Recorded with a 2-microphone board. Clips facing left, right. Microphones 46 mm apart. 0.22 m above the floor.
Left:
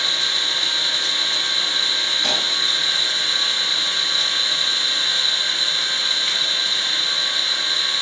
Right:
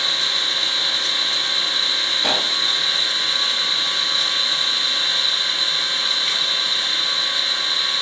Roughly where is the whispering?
No whispering in this recording.